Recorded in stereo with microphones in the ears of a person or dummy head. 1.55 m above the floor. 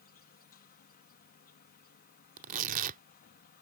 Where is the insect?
45° left (ahead or behind).